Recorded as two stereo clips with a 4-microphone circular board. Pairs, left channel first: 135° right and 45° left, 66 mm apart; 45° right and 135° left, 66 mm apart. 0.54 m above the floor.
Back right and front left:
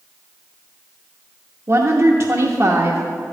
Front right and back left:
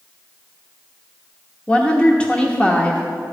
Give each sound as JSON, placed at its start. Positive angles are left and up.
{"t": 1.7, "sound": "a woman speaking", "azimuth_deg": 25, "distance_m": 0.9}